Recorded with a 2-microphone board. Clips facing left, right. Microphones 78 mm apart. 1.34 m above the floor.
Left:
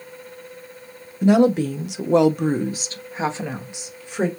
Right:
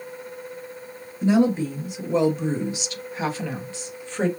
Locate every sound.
1.2 s a woman speaking: 60° left (ahead or behind), 0.8 m; by 4.3 s 10° left (ahead or behind), 1.5 m